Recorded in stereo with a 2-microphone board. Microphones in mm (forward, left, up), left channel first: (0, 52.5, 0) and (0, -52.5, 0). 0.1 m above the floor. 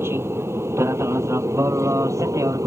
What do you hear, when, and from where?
0.0 s an aircraft: 25° right (ahead or behind); by 2.7 s 30° right (ahead or behind)